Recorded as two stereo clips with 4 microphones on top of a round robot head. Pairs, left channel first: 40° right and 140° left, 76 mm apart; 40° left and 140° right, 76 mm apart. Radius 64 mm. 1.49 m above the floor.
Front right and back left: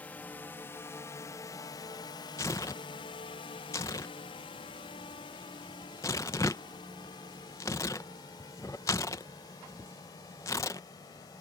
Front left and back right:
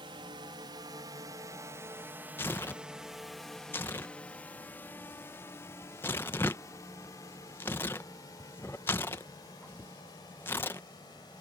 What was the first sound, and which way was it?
A drone, 110° right.